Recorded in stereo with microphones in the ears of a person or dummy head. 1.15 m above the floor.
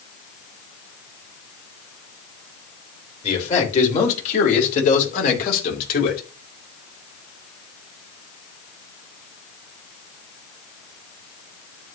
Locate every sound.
3.2 s a man speaking: 40° left (ahead or behind), 4.5 m; by 6.2 s 55° left (ahead or behind), 3.5 m